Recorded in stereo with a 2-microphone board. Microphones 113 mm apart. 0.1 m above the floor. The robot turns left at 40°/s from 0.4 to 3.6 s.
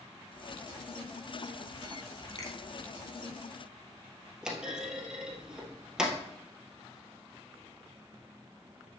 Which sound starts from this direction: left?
A finger snap, at 2.4 s.